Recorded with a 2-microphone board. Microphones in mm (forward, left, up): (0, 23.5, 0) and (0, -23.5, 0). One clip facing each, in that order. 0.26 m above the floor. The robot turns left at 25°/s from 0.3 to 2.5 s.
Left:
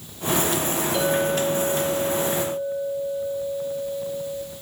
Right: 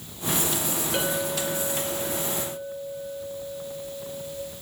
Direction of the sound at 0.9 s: 70° right.